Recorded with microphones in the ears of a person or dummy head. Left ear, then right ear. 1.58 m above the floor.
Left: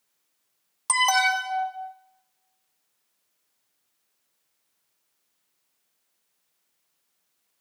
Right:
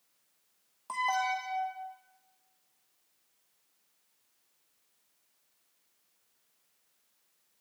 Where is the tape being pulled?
I don't hear tape being pulled.